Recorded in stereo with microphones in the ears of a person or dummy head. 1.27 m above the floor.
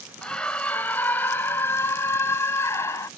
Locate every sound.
0.2 s a scream: 10° left (ahead or behind); by 3.1 s 20° left (ahead or behind)